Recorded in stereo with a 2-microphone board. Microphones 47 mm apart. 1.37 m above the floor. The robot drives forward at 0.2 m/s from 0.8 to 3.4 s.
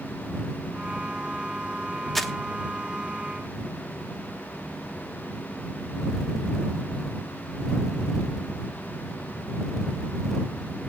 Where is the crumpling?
5° left (ahead or behind), 1.1 m.